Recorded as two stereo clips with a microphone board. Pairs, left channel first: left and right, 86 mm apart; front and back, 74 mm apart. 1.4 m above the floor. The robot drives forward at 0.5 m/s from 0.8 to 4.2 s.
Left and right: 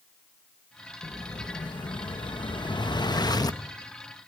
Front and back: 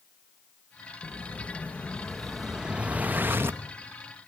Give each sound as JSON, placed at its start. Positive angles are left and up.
{"t": 1.0, "sound": "an explosion", "azimuth_deg": 55, "distance_m": 1.1}